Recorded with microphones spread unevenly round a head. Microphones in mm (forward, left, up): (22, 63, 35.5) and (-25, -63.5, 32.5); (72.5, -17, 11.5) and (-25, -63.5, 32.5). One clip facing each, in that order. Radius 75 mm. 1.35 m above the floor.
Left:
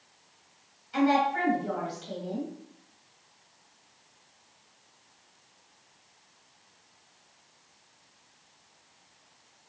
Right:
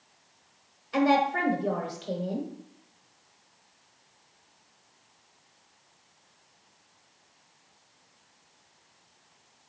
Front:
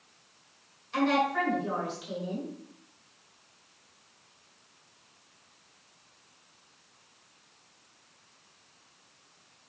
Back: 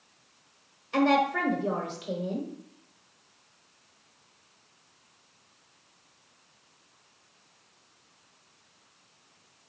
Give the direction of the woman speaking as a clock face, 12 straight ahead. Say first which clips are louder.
Right 1 dB, back 3 dB; 4 o'clock.